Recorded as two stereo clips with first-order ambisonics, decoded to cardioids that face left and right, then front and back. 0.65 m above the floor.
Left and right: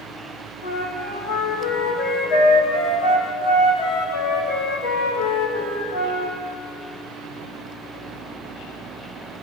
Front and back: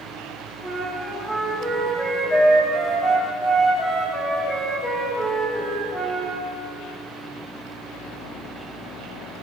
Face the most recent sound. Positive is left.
turn(degrees=90)